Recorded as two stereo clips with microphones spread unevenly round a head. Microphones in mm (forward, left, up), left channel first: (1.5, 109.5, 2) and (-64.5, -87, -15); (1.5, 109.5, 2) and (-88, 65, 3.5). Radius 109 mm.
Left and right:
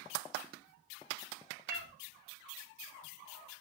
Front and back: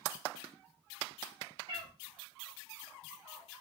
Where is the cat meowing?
130° right, 0.5 m.